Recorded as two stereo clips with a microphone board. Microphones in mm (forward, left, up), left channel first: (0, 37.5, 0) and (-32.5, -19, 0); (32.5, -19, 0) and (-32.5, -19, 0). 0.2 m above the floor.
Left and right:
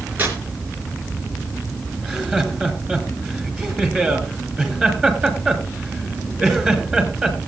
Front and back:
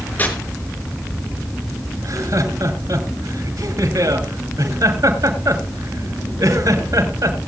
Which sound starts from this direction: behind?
Laughter, at 2.0 s.